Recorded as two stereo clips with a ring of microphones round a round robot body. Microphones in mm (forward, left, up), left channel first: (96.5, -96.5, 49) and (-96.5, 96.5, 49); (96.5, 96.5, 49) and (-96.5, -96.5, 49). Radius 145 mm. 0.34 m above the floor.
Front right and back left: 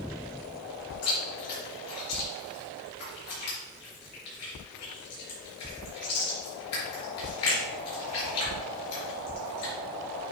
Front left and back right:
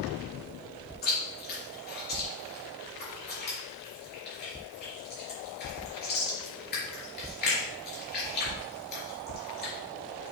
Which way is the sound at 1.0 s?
10° right.